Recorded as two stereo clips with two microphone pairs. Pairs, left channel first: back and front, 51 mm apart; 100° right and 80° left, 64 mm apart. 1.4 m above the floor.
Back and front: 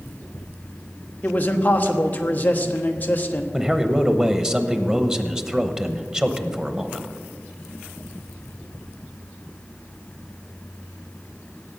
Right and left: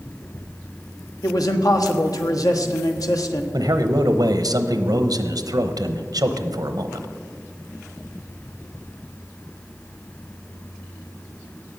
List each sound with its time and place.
1.2 s a man speaking: 120° right, 1.2 m
3.5 s a man speaking: 70° left, 0.9 m